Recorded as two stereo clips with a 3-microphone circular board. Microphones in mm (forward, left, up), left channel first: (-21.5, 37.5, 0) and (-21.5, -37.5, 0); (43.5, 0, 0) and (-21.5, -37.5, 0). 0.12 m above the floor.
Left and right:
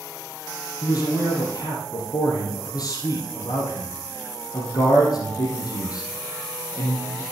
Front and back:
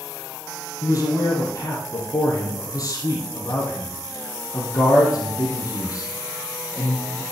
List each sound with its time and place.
0.8 s a man speaking: 65° left, 4 m